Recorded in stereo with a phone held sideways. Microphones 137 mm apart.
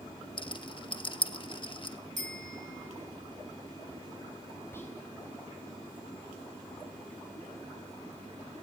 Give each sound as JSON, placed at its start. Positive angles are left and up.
{"t": 0.4, "sound": "a rattle", "side_deg": 40, "distance_m": 1.4}
{"t": 2.2, "sound": "a bicycle bell", "side_deg": -65, "distance_m": 3.5}
{"t": 4.7, "sound": "whispering", "side_deg": 20, "distance_m": 3.5}